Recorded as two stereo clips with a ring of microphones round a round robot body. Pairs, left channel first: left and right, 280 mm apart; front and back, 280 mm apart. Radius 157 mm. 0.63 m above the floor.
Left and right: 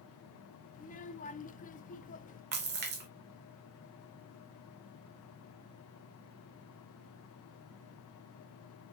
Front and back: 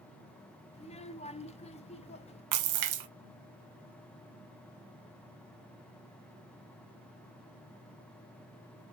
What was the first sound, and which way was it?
A child speaking, 50° left.